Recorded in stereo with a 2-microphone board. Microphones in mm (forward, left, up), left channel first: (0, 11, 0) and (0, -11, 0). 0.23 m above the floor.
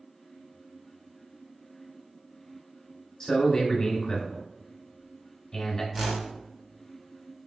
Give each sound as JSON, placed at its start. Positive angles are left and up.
{"t": 3.2, "sound": "a man speaking", "side_deg": 25, "distance_m": 1.3}
{"t": 5.9, "sound": "a whoosh", "side_deg": -15, "distance_m": 0.6}